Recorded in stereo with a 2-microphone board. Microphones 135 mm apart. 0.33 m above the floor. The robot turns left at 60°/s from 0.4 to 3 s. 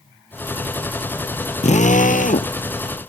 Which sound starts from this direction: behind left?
A drill, at 1.6 s.